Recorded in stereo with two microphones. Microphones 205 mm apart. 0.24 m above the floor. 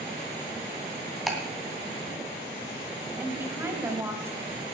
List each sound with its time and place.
1.3 s ticking: centre (ahead or behind), 2 m
3.2 s a woman speaking: 10° right (ahead or behind), 1.5 m